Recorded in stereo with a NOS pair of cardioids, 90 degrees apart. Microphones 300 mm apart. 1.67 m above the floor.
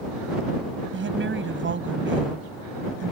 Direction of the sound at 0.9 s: 40° right.